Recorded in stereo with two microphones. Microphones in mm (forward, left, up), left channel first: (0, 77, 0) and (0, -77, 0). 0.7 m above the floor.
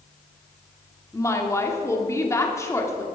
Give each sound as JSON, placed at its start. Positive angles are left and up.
{"t": 1.1, "sound": "a woman speaking", "side_deg": 20, "distance_m": 1.9}